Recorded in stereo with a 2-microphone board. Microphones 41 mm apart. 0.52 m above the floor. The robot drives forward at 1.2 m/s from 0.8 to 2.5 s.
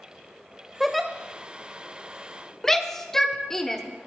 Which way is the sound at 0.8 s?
5° right (ahead or behind).